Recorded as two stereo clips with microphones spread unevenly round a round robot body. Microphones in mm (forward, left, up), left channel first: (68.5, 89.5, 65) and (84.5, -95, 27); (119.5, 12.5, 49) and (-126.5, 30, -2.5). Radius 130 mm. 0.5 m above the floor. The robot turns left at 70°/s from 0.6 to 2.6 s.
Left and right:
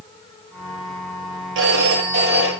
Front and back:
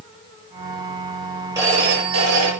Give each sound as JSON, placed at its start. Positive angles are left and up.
{"t": 1.6, "sound": "a phone ringing", "azimuth_deg": -105, "distance_m": 9.0}